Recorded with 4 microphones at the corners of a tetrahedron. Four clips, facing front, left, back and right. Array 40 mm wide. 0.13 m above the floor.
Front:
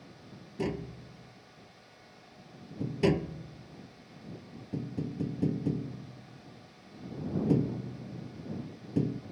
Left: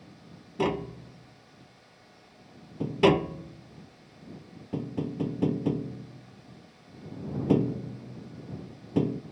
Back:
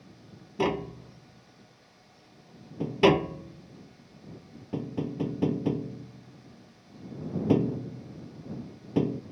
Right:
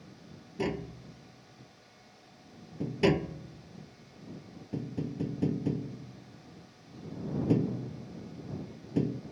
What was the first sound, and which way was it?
Tapping, 145° left.